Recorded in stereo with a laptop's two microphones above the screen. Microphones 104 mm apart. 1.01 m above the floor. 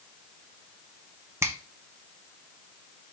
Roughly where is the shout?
I don't hear a shout.